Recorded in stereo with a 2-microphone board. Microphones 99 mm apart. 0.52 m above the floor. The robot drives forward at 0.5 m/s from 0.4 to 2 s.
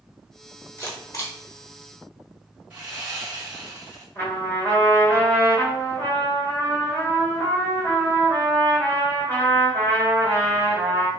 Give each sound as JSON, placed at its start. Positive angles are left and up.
{"t": 0.8, "sound": "a camera shutter", "side_deg": 30, "distance_m": 0.9}
{"t": 2.7, "sound": "sawing", "side_deg": -15, "distance_m": 1.4}
{"t": 4.2, "sound": "a trumpet", "side_deg": 25, "distance_m": 1.3}